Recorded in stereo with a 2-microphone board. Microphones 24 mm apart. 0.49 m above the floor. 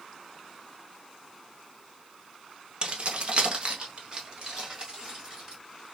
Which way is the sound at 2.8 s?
40° right (ahead or behind).